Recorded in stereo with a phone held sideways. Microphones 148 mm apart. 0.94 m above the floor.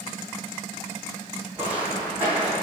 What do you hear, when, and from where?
1.6 s footsteps: 10° right (ahead or behind), 1.7 m